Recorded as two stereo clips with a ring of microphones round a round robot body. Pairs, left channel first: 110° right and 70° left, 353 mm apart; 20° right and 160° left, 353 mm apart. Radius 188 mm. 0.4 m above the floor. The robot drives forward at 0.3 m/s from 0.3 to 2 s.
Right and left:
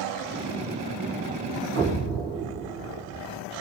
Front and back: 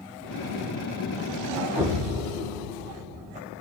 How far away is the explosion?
About 1.5 m.